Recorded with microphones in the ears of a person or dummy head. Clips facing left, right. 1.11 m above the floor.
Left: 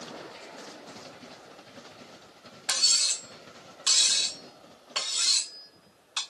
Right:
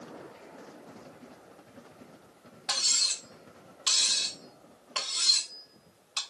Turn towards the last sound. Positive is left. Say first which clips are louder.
# even
turn(degrees=30)  # may be behind; listen again after turning